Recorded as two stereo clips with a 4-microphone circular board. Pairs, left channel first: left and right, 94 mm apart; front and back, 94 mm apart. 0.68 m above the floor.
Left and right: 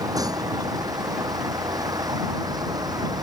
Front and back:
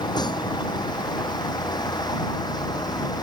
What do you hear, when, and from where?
0.0 s a vehicle: 40° right; by 3.2 s 45° right